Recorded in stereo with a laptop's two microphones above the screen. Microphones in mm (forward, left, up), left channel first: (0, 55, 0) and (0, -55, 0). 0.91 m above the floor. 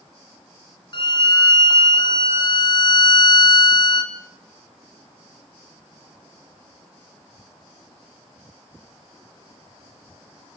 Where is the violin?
45° left (ahead or behind), 2.0 m.